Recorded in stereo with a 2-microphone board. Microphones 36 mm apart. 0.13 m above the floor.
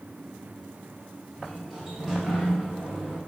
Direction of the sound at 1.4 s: Centre (ahead or behind).